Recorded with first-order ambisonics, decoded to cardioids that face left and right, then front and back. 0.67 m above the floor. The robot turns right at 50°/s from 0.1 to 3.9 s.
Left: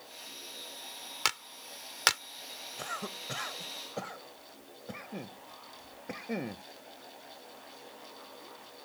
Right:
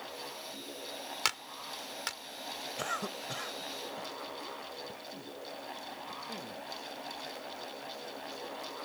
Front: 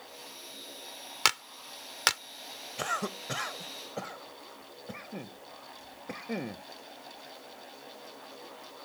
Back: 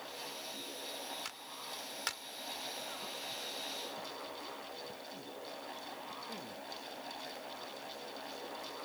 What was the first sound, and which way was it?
A clap, 5° left.